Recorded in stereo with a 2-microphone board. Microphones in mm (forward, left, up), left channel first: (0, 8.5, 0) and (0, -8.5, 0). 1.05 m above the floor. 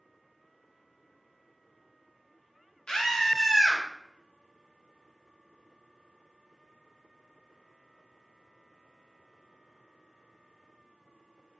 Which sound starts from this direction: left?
A scream, at 2.9 s.